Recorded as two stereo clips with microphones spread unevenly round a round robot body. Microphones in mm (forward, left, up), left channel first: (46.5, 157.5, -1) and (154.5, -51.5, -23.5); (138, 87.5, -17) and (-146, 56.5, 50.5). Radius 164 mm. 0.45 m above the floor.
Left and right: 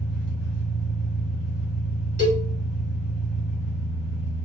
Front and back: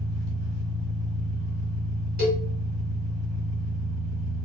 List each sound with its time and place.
0.0 s an engine running: 150° left, 1.6 m
2.2 s a cowbell: 125° left, 1.8 m